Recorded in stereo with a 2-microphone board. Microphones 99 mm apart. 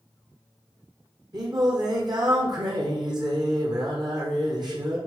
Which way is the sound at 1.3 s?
45° right (ahead or behind).